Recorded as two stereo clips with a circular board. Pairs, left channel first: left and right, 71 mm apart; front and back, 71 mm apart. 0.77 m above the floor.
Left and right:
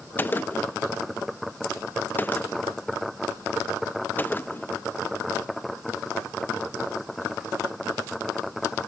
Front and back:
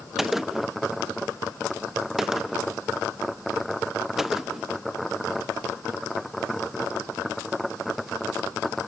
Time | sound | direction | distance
0.2 | a gunshot | 100° left | 0.6 m